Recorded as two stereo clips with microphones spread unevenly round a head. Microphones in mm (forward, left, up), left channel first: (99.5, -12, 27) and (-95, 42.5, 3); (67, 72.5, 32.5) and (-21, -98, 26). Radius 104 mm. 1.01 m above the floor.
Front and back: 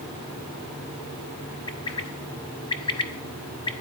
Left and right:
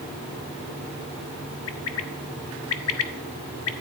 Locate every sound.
1.7 s a bird: 50° left, 1.2 m